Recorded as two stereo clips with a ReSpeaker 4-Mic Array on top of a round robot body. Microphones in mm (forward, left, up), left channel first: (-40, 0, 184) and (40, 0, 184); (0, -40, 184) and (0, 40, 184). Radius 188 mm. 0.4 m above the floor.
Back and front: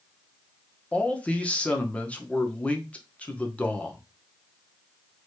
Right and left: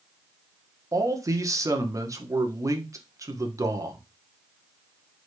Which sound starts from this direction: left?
A man speaking, at 0.9 s.